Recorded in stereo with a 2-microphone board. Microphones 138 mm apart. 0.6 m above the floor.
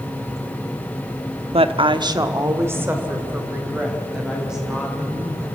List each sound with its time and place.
1.5 s a woman speaking: 45° right (ahead or behind), 0.8 m; by 5.5 s 5° right (ahead or behind), 4.5 m